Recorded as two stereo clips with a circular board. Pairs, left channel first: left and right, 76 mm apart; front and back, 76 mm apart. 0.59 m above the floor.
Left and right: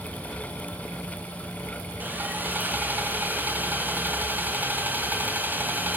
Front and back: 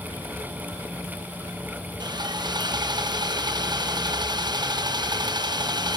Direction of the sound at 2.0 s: 155° right.